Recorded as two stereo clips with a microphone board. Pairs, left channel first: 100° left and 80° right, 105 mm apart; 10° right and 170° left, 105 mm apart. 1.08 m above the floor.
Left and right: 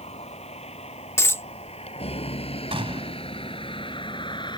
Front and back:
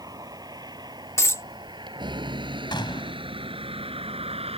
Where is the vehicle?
115° left; by 4.6 s 145° left.